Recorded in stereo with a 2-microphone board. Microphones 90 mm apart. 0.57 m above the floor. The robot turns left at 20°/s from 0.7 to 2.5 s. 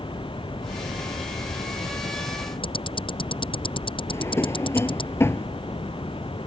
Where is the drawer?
30° left (ahead or behind).